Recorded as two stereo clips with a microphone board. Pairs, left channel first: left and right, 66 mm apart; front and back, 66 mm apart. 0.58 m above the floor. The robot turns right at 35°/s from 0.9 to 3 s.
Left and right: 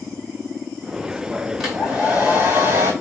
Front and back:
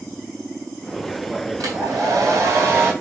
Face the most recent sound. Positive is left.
turn(degrees=-125)